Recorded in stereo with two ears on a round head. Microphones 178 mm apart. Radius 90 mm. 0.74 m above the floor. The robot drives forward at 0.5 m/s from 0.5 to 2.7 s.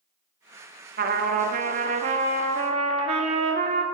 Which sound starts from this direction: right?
A trumpet, at 1.0 s.